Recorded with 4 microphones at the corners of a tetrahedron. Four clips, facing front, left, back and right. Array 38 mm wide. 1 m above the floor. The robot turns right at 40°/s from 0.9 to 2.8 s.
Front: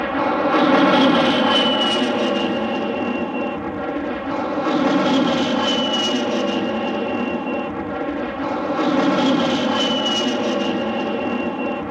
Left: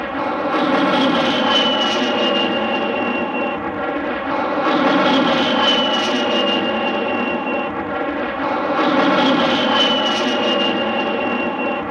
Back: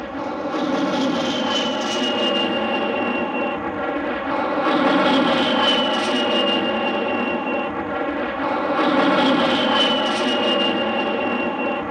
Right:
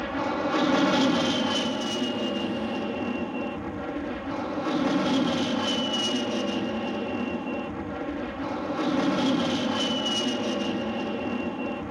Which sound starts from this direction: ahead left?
An aircraft, at 0.0 s.